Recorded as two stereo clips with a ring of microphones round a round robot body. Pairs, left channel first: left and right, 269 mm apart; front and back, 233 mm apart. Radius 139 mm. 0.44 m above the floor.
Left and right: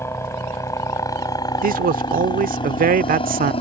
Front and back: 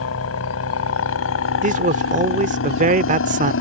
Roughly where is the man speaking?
Behind right.